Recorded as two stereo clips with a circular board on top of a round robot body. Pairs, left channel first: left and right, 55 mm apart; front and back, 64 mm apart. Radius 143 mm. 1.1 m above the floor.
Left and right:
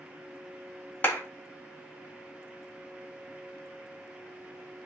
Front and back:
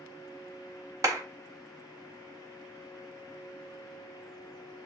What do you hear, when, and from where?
1.0 s a clap: 145° left, 1.9 m